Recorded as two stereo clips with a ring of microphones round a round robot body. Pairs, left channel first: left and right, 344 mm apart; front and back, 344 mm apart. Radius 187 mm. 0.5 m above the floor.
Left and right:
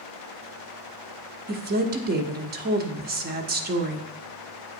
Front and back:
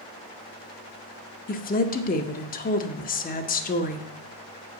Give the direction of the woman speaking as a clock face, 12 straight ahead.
2 o'clock.